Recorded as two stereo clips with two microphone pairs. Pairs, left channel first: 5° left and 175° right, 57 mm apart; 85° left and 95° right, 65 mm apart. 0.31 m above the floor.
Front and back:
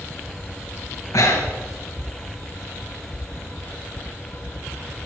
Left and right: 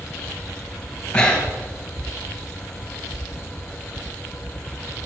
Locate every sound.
1.1 s breathing: 10° left, 3.5 m